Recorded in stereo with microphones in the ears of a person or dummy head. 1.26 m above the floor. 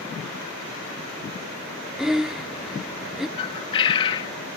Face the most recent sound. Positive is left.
turn(degrees=25)  # may be behind; listen again after turning